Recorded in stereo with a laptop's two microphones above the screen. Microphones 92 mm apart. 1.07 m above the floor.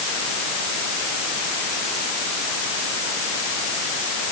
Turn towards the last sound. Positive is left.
No sound to turn to.